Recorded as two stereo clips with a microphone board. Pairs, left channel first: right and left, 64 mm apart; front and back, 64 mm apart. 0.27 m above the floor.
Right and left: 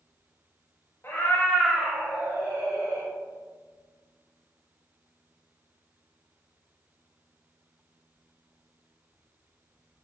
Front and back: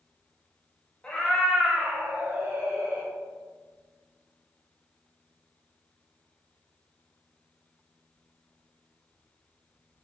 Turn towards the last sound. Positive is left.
turn(degrees=130)